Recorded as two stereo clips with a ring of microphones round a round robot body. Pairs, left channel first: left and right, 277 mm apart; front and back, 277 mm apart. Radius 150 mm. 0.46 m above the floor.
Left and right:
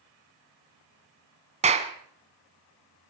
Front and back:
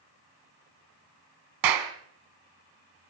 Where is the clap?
155° right, 3 m.